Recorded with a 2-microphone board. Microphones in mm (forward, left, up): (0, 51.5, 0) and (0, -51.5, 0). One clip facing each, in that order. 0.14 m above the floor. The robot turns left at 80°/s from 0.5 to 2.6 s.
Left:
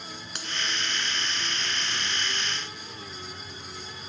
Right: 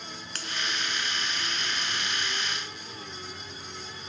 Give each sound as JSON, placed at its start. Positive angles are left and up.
{"t": 0.3, "sound": "a finger snap", "side_deg": 20, "distance_m": 1.0}